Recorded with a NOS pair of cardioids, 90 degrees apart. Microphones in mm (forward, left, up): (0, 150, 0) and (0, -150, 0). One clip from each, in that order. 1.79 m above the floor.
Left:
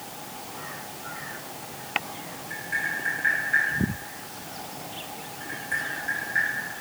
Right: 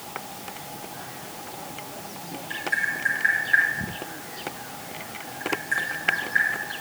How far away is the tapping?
About 2.5 m.